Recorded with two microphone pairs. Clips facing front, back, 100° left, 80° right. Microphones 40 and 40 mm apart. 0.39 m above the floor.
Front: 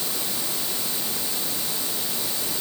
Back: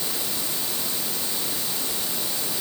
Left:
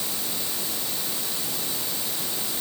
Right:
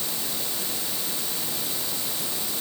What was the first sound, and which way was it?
Only background noise.